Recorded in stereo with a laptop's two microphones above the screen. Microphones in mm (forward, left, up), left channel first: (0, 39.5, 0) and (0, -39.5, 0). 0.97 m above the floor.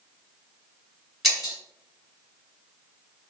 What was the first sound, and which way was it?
Breaking glass, centre (ahead or behind).